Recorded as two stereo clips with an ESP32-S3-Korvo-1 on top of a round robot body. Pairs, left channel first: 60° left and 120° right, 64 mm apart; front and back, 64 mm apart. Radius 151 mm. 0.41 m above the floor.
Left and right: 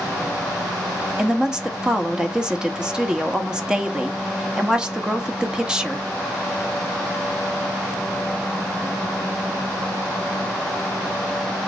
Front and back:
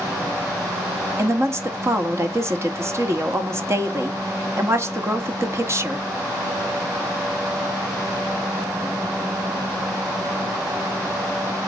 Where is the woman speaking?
165° left, 1.6 m.